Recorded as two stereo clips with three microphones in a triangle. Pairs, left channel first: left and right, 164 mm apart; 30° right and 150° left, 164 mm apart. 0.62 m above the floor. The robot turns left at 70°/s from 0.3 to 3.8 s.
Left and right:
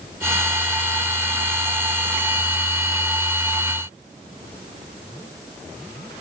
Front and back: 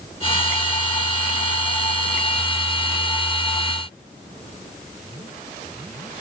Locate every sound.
Only background noise.